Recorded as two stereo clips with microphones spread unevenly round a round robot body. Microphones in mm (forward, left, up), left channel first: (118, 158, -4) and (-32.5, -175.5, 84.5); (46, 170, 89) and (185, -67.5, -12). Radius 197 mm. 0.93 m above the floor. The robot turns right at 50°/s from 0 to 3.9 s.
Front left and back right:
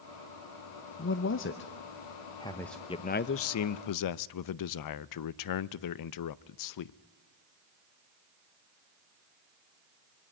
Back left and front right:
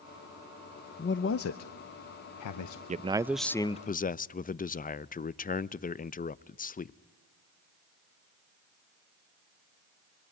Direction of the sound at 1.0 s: 50° left.